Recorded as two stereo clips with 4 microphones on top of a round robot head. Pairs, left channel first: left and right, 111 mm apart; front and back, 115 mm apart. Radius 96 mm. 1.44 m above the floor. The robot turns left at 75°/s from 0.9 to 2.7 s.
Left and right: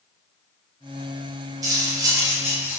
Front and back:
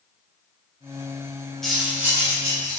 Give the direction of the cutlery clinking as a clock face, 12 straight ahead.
3 o'clock.